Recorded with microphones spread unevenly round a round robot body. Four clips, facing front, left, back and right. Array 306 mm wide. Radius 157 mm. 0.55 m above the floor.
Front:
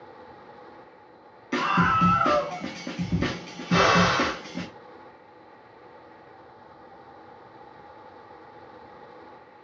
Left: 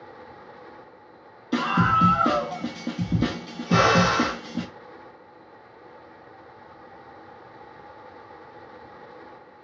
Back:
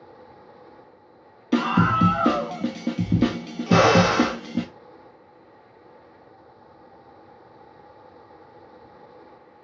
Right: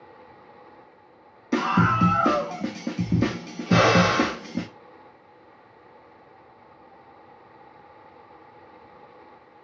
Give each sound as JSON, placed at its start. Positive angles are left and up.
{"t": 1.5, "sound": "a scream", "azimuth_deg": -175, "distance_m": 0.8}
{"t": 3.7, "sound": "a drill", "azimuth_deg": -165, "distance_m": 0.9}